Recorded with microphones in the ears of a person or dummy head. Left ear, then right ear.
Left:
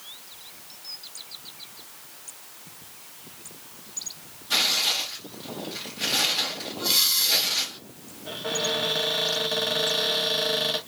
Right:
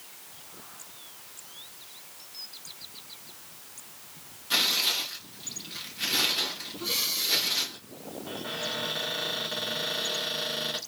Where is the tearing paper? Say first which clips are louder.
Left 2 dB; 20° right (ahead or behind), 2 m.